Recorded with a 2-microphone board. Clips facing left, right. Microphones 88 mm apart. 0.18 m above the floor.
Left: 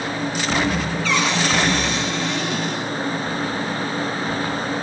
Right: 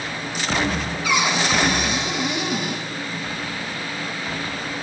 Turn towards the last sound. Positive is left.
turn(degrees=-10)  # may be behind; listen again after turning